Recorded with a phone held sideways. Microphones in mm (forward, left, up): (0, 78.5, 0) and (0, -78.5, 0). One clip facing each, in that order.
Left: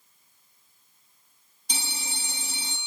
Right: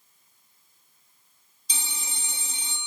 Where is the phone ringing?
60° left (ahead or behind), 1.2 m.